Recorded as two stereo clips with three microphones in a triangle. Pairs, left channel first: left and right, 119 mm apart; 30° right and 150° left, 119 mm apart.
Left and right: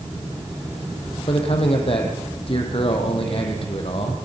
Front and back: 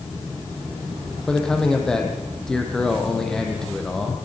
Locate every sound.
1.3 s a man speaking: 55° left, 4 m